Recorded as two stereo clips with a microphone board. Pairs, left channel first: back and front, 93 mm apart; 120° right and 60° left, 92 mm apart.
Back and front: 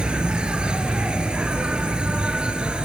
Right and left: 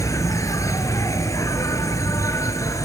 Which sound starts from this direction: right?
An insect, at 0.0 s.